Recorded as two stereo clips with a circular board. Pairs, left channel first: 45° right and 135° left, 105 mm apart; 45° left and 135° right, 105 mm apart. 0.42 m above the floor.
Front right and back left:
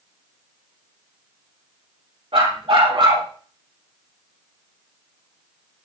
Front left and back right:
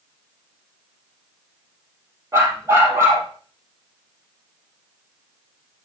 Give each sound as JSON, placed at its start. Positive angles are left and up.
{"t": 2.3, "sound": "a dog barking", "azimuth_deg": 165, "distance_m": 3.5}